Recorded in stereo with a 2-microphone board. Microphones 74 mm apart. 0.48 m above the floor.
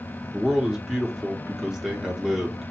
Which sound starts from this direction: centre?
A man speaking, at 0.3 s.